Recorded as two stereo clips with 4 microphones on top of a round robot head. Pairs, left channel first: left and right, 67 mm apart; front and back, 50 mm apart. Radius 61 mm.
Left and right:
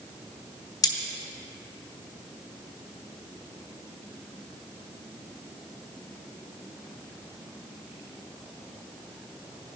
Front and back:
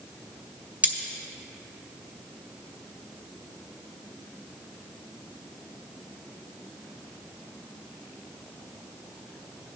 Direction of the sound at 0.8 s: 120° left.